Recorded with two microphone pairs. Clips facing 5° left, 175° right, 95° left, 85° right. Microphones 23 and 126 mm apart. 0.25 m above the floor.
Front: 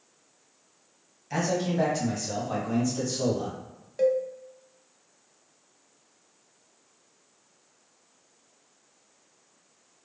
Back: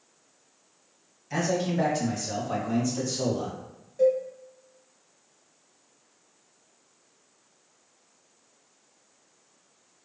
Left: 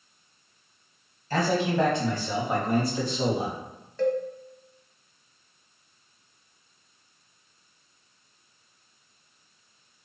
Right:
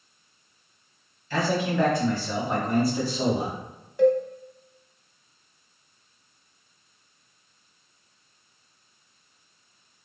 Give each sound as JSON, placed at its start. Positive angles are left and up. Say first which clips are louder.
{"t": 1.3, "sound": "a man speaking", "louder": "even, left 1 dB", "azimuth_deg": 80, "distance_m": 1.2}
{"t": 4.0, "sound": "a cowbell", "louder": "back 1 dB, right 6 dB", "azimuth_deg": -10, "distance_m": 0.5}